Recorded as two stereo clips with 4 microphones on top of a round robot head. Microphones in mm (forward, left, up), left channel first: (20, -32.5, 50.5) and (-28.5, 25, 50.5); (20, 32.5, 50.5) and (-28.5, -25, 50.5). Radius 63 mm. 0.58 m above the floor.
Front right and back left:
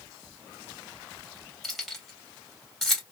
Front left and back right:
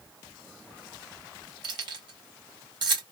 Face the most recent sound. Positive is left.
turn(degrees=-135)